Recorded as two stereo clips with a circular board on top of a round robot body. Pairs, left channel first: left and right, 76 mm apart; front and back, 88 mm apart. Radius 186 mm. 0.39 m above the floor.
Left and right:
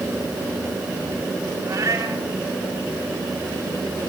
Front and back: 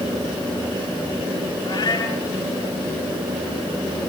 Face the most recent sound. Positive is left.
turn(degrees=-35)